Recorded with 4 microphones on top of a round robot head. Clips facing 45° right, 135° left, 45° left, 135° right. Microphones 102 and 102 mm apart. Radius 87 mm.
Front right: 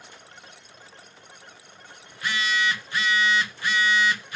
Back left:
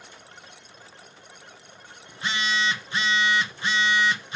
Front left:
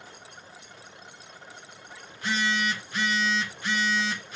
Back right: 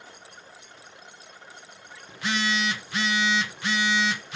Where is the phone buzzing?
155° right, 1.0 m.